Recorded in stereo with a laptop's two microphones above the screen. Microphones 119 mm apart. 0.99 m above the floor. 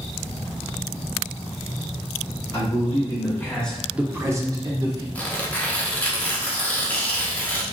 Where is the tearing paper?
15° left (ahead or behind), 0.9 m.